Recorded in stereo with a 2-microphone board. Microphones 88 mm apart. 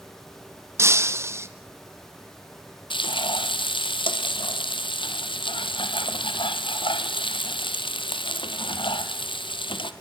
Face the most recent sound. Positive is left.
turn(degrees=70)  # may be behind; listen again after turning